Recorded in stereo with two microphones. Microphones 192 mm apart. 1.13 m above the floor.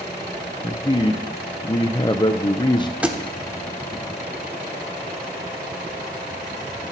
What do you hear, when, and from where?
0.6 s a man speaking: 25° left (ahead or behind), 0.7 m
3.0 s a thud: 5° right (ahead or behind), 1.3 m